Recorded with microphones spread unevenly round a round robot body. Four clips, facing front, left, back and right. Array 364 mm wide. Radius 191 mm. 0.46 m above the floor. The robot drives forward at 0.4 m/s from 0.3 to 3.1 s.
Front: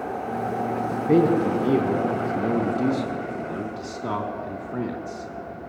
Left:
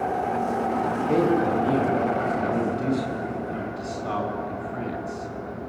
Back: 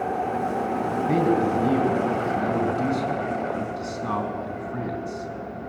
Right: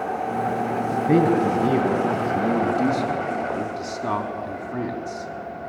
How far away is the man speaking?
About 4.5 m.